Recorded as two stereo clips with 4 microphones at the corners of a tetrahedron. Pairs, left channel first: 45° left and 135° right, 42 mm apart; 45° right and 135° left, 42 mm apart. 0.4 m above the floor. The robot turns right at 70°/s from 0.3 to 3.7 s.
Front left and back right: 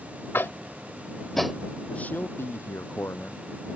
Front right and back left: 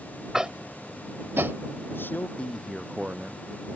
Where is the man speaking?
10° right; by 3.4 s 90° left.